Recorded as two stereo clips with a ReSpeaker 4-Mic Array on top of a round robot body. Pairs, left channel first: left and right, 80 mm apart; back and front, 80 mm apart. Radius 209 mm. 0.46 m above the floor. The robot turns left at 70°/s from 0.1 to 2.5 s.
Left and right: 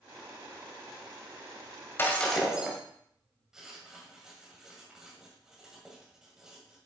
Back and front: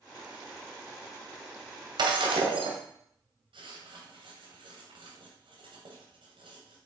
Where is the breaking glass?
25° left, 2.0 m; by 2.8 s 10° right, 2.0 m.